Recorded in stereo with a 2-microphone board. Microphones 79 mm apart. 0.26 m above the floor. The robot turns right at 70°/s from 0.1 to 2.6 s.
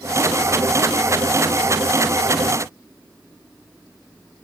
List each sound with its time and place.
Only background noise.